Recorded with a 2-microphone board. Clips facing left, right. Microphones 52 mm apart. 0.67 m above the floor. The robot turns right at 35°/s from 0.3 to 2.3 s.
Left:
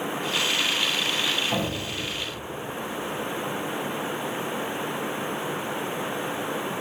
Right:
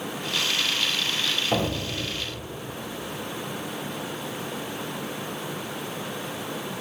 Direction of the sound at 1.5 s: 40° right (ahead or behind).